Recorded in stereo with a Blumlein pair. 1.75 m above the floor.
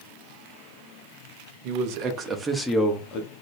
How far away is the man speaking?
About 0.9 m.